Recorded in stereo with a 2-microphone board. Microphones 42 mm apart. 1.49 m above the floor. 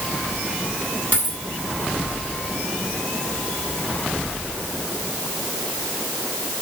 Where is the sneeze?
I don't hear a sneeze.